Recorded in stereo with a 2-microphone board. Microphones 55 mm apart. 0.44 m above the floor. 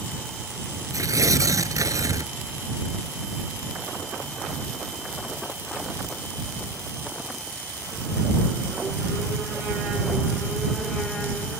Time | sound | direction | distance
0.9 | tearing paper | 80° right | ?